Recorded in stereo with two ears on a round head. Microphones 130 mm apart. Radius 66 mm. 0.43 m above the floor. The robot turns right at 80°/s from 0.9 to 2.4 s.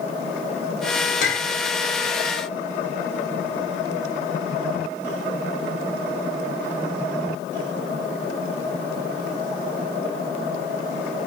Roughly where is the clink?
Left.